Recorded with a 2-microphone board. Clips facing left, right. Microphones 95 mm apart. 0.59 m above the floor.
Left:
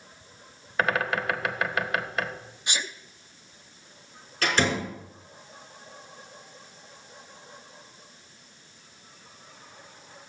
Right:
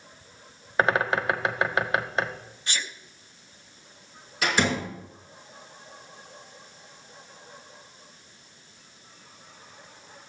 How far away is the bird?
About 0.8 m.